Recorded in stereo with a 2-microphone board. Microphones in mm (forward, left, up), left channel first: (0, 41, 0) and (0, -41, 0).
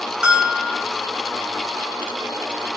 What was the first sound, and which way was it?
A bell, 10° right (ahead or behind).